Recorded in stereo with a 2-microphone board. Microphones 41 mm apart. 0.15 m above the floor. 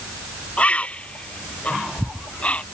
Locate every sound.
0.6 s a bird: 30° left (ahead or behind)